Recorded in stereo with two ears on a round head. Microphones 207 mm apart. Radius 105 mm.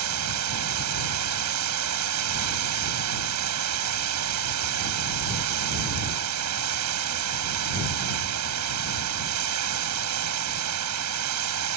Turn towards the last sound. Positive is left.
turn(degrees=-75)  # may be behind; listen again after turning